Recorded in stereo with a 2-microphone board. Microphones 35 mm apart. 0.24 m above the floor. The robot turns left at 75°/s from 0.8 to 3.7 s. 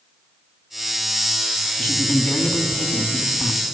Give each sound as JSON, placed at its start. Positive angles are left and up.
{"t": 1.8, "sound": "a man speaking", "azimuth_deg": 120, "distance_m": 2.0}